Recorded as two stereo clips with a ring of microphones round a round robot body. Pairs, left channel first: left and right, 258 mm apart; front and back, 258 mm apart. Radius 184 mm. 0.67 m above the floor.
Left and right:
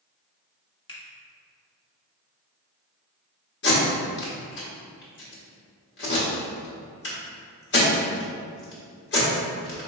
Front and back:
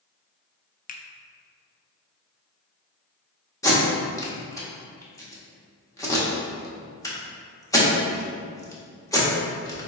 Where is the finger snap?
30° left, 0.5 m.